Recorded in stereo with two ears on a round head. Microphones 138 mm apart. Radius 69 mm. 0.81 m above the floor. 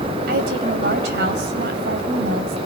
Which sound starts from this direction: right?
A woman speaking, at 0.3 s.